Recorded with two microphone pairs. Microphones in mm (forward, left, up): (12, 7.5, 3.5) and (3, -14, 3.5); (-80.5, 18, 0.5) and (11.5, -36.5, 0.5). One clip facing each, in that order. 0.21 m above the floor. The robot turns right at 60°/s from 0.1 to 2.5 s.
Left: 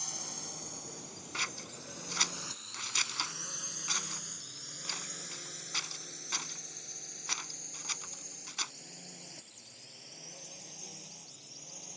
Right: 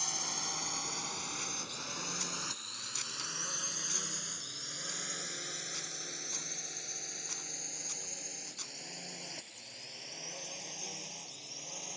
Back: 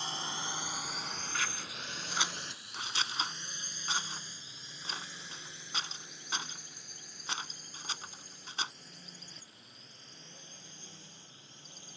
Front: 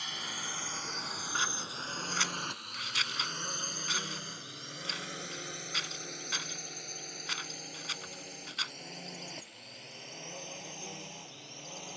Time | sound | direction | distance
0.0 | a drone | 170° right | ?
1.3 | scissors | 30° left | ?